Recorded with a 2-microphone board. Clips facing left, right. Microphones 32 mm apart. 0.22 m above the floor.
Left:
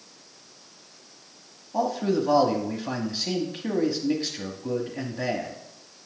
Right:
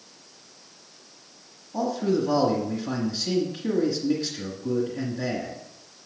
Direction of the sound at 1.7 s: 30° left (ahead or behind).